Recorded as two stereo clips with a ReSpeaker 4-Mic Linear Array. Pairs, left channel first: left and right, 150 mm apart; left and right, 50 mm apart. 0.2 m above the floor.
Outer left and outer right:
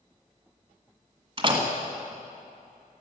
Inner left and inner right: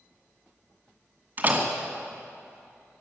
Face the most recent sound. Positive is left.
turn(degrees=-35)  # may be behind; listen again after turning